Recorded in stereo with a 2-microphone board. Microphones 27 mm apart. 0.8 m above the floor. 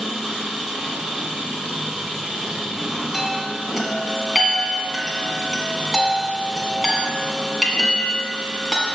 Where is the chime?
5° right (ahead or behind), 1.7 m.